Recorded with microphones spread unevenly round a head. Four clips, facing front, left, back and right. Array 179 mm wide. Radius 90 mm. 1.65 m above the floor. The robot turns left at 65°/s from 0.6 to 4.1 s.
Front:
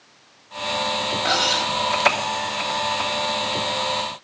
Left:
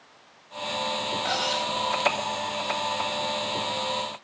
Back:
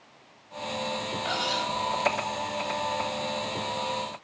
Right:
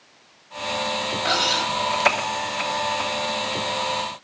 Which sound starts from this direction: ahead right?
Cutlery clinking, at 1.2 s.